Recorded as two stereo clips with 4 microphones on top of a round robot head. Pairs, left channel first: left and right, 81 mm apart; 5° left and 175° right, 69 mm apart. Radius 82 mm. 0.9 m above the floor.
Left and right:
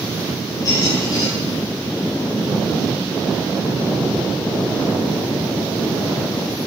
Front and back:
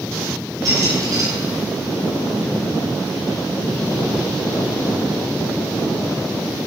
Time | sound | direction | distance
0.7 | a squeak | 145° left | 8.5 m